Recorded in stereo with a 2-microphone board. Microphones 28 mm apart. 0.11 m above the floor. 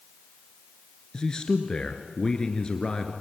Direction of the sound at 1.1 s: 25° left (ahead or behind).